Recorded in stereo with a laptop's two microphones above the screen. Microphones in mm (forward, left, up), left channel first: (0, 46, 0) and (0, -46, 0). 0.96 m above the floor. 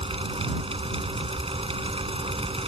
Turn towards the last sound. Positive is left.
turn(degrees=-85)